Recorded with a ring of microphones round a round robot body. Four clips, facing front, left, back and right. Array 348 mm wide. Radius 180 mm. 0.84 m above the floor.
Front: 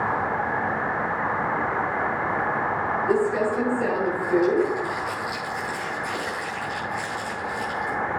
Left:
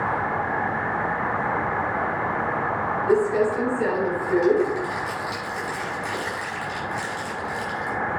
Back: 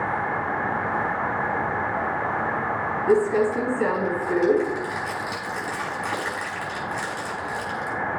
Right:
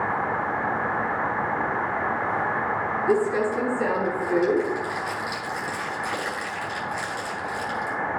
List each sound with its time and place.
3.1 s crumpling: 170° right, 5.5 m